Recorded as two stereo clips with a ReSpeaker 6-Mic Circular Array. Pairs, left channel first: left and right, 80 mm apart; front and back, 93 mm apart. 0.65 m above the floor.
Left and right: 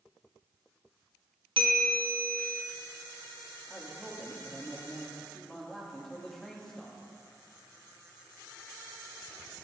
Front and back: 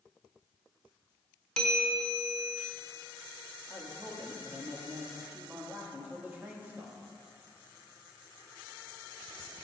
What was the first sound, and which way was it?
A bell, 85° right.